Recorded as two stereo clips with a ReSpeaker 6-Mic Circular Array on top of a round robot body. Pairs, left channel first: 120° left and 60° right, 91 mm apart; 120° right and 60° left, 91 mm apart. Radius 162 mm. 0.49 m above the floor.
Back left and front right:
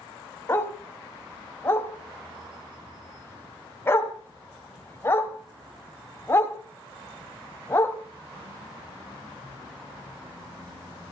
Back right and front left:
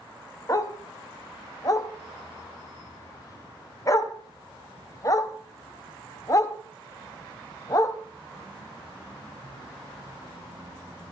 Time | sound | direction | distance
0.5 | a dog barking | 175° right | 1.5 m